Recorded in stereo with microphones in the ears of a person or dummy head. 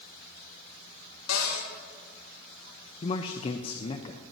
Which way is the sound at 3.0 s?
30° left (ahead or behind).